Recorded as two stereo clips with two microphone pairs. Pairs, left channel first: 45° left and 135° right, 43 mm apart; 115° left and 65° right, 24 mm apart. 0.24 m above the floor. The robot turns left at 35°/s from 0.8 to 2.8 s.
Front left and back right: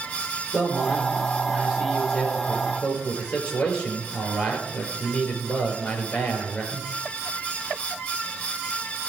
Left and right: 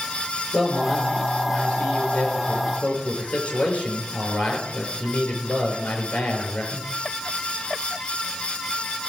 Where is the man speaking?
170° right, 5 m; by 6.8 s 120° left, 5 m.